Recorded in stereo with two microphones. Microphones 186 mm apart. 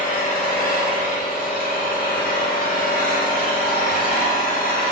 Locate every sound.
0.0 s an engine running: 50° left (ahead or behind), 0.7 m